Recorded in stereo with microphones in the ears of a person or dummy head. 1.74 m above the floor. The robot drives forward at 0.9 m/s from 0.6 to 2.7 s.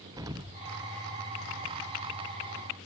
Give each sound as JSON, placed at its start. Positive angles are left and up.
{"t": 0.2, "sound": "an explosion", "side_deg": -15, "distance_m": 0.7}